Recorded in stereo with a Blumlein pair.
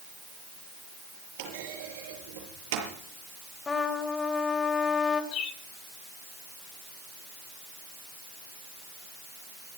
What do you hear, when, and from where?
1.4 s a clunk: 50° right, 6.5 m
3.7 s a trumpet: 15° left, 2 m
5.3 s a bird: 30° left, 2 m